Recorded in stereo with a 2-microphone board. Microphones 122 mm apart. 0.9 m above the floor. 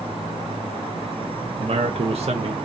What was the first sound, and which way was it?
A man speaking, 55° right (ahead or behind).